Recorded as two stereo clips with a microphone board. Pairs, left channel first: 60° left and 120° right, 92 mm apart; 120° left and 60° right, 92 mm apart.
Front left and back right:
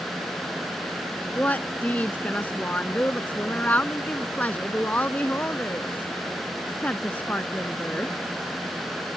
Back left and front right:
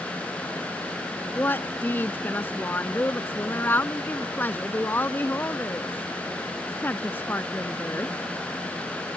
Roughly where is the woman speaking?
Left.